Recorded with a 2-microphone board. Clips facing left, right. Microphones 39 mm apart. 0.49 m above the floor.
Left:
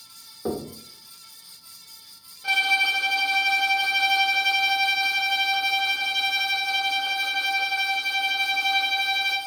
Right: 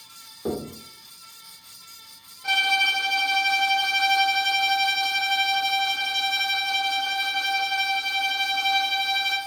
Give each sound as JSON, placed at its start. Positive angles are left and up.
{"t": 0.5, "sound": "knocking", "side_deg": 15, "distance_m": 0.9}
{"t": 2.4, "sound": "a violin", "side_deg": 5, "distance_m": 1.1}